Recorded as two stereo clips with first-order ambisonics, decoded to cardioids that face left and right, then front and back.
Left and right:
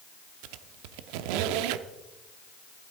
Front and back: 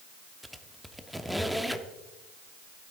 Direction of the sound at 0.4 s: 90° right.